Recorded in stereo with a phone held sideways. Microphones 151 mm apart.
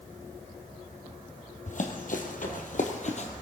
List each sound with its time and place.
1.7 s running footsteps: 55° left (ahead or behind), 2.5 m; by 3.3 s 45° left (ahead or behind), 2 m